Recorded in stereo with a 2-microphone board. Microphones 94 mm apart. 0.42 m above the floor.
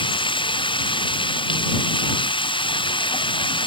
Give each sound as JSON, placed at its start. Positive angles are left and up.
{"t": 0.0, "sound": "running water", "side_deg": 60}